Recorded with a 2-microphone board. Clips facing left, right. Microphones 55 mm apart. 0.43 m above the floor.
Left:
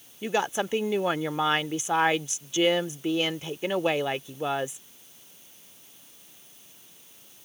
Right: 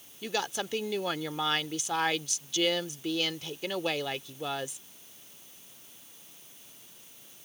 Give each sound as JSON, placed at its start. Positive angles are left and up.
{"t": 0.2, "sound": "a woman speaking", "side_deg": 25}